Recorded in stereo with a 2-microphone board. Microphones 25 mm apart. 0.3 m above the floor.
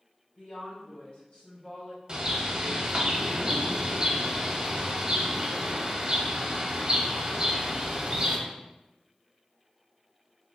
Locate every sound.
0.4 s a woman speaking: 35° left (ahead or behind), 1.8 m
2.1 s a bird: 30° right (ahead or behind), 0.6 m